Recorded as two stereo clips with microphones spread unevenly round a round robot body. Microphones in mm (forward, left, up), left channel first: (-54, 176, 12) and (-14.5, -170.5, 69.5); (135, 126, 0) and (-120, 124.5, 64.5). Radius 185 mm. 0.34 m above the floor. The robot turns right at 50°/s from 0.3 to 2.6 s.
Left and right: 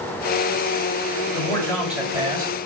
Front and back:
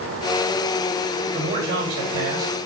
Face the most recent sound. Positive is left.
turn(degrees=-145)